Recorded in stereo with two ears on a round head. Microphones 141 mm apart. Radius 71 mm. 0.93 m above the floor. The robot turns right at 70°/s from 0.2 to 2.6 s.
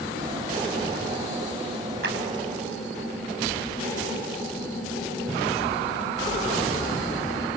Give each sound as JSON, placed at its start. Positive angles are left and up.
{"t": 2.0, "sound": "a clap", "side_deg": -75, "distance_m": 5.0}